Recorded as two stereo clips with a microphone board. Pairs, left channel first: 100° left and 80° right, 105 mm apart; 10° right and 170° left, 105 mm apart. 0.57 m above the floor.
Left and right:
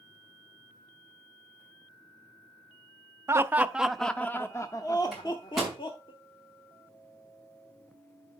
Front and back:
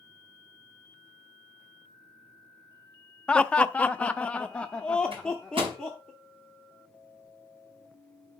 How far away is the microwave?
About 5 m.